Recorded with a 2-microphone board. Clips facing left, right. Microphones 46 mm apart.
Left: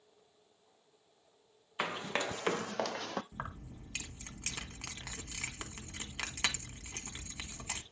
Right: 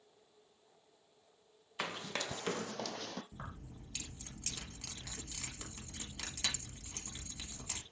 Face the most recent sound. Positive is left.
turn(degrees=45)  # may be behind; listen again after turning